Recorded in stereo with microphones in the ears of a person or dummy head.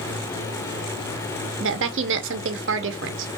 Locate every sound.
1.6 s a woman speaking: 60° right (ahead or behind), 0.9 m